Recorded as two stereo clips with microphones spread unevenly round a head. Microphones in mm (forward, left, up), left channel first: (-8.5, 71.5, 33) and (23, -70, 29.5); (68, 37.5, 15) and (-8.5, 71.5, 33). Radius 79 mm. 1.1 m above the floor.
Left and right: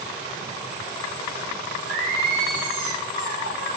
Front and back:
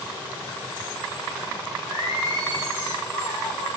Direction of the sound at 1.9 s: 60° right.